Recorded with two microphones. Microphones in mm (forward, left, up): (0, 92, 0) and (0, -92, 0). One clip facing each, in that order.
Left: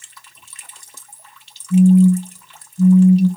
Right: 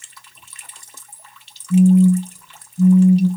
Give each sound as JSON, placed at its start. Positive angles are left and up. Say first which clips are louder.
{"t": 1.7, "sound": "a phone buzzing", "louder": "left 1 dB", "side_deg": -15, "distance_m": 2.0}